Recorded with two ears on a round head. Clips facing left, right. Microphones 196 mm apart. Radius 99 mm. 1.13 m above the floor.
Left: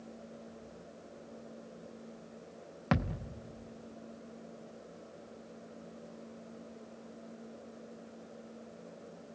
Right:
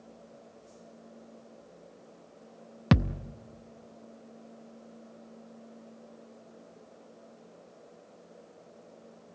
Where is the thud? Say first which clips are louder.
Right 7 dB; 45° right (ahead or behind), 0.6 m.